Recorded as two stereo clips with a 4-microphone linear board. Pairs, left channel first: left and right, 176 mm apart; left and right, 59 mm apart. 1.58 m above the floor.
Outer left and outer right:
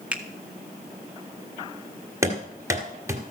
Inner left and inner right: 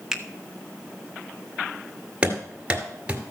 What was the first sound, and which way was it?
A finger snap, 10° right (ahead or behind).